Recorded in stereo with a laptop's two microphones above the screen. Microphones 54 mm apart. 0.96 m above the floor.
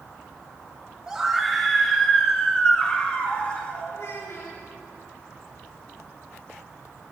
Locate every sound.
1.1 s a scream: 15° right (ahead or behind), 1.4 m; by 3.9 s 25° left (ahead or behind), 3.5 m
3.9 s a child speaking: 65° left (ahead or behind), 3.5 m